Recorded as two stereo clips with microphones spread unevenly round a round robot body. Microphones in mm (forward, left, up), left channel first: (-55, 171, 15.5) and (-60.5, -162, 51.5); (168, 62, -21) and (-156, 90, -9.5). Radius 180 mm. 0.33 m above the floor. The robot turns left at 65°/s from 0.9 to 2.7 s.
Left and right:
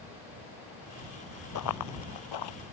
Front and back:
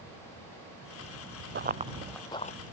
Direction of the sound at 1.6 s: 125° left.